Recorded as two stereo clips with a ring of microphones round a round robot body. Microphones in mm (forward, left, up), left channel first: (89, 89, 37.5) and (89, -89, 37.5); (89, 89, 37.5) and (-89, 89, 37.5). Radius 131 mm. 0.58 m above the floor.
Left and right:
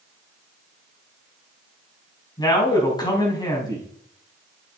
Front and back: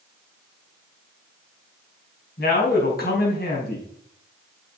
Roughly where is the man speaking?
Ahead left.